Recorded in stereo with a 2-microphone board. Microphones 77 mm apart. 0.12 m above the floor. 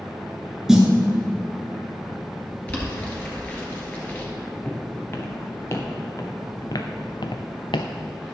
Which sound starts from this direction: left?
Footsteps, at 4.7 s.